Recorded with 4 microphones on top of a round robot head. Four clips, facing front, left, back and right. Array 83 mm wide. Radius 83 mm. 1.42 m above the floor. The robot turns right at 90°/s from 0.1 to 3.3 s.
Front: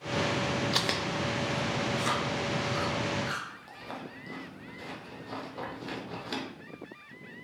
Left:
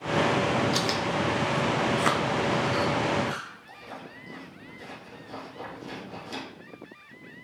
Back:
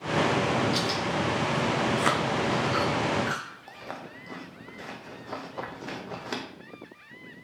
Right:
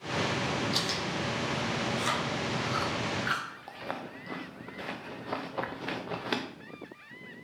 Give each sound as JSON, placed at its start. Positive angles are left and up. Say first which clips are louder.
{"t": 0.7, "sound": "chewing", "louder": "left 6 dB, back 3 dB", "azimuth_deg": 15, "distance_m": 0.5}